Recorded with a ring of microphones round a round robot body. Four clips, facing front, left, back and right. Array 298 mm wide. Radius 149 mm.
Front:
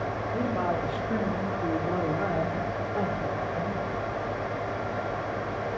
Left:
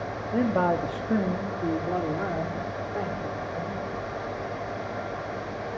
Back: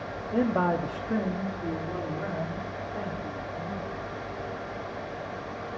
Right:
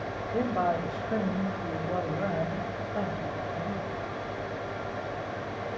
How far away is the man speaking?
About 1.3 m.